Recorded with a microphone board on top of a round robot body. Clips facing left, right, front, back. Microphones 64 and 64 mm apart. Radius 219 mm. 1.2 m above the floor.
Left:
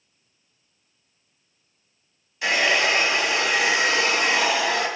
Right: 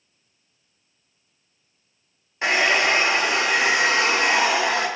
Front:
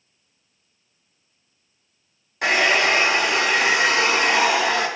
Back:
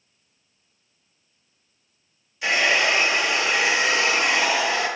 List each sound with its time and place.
2.4 s a hair dryer: 40° right, 2.5 m